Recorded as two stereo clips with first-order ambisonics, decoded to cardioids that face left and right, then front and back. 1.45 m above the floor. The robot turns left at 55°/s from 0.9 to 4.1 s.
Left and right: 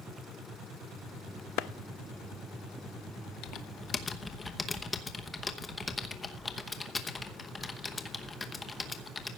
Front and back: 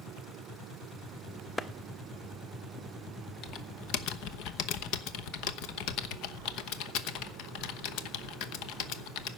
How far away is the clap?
About 0.5 m.